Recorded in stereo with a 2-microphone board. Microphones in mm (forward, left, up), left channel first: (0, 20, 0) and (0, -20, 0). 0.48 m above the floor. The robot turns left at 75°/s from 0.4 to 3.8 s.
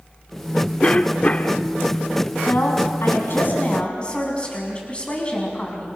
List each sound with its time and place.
0.8 s a cough: 125° left, 1.2 m; by 1.6 s 65° left, 1.2 m
2.5 s a woman speaking: 130° left, 5 m; by 6.0 s 30° left, 5 m